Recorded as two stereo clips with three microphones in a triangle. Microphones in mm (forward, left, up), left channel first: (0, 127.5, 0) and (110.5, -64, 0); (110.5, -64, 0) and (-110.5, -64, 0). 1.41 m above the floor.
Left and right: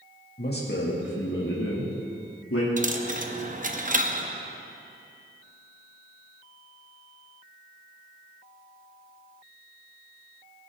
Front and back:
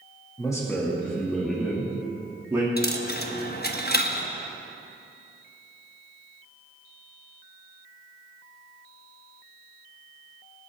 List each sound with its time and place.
0.4 s a man speaking: 75° left, 2 m; by 2.7 s 105° left, 2.5 m
2.8 s a dropped coin: 20° right, 0.9 m